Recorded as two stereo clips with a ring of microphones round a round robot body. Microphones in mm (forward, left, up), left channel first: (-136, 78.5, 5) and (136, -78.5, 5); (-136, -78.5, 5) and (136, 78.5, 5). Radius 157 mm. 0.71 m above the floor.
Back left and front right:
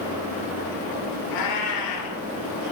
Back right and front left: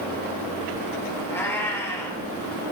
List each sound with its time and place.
1.3 s a cat meowing: 125° left, 6.5 m